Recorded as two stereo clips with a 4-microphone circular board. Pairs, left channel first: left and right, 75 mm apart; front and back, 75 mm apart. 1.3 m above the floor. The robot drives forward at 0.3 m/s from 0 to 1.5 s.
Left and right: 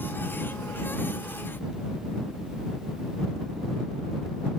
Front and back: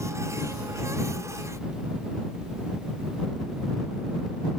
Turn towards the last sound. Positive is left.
No sound to turn to.